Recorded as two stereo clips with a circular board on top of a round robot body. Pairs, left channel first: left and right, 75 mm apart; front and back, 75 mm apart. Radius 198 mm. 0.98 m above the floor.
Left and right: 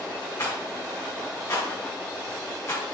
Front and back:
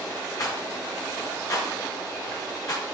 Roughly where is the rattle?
Ahead left.